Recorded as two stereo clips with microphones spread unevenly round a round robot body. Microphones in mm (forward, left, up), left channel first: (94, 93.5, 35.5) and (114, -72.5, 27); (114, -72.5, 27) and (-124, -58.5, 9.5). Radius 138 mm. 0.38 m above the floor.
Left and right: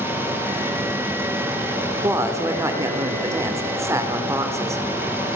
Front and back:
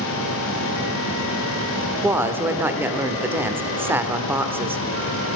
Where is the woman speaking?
125° right, 1.1 m.